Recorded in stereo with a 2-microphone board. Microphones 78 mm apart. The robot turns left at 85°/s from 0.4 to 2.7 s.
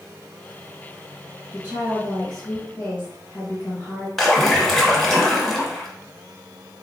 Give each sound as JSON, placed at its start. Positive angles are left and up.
{"t": 1.5, "sound": "a woman speaking", "azimuth_deg": -120, "distance_m": 1.8}
{"t": 4.2, "sound": "a splash", "side_deg": 5, "distance_m": 0.8}